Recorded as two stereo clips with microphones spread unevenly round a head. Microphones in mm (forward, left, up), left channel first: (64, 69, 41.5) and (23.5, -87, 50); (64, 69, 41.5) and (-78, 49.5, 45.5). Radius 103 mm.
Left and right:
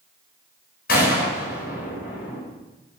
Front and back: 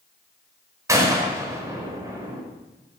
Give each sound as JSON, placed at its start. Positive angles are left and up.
{"t": 0.9, "sound": "a gunshot", "azimuth_deg": 120, "distance_m": 5.5}